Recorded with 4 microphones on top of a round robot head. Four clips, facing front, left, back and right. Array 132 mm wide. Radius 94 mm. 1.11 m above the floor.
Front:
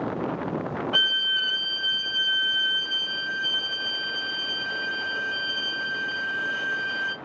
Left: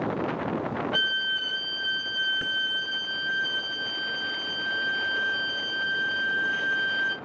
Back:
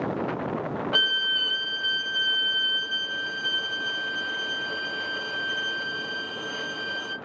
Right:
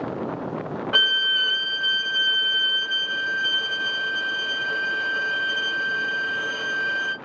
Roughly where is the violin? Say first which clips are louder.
Right 4 dB, even; behind right.